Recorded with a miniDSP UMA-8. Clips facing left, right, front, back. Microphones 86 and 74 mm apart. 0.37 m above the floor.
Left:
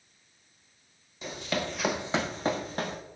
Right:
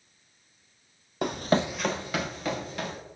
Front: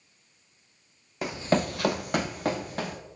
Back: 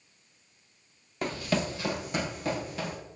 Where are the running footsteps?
85° right, 0.8 m; by 3.0 s 45° left, 2 m.